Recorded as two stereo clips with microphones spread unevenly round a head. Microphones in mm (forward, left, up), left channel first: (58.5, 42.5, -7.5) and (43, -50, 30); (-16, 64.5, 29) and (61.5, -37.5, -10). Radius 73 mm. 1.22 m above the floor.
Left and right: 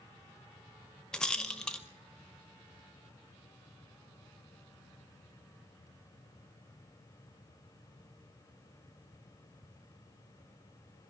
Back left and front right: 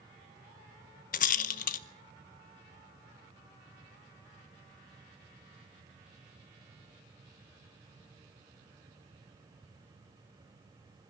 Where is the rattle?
165° left, 0.8 m.